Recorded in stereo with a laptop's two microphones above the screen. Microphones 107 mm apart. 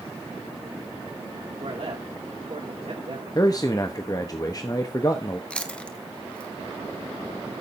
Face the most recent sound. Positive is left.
turn(degrees=10)  # may be behind; listen again after turning